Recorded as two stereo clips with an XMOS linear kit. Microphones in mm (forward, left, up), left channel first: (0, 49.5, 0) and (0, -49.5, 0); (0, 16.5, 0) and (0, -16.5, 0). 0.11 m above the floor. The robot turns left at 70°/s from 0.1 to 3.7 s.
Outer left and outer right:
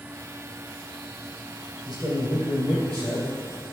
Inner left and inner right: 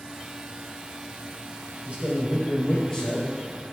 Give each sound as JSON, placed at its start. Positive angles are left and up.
{"t": 1.9, "sound": "a man speaking", "azimuth_deg": -115, "distance_m": 2.5}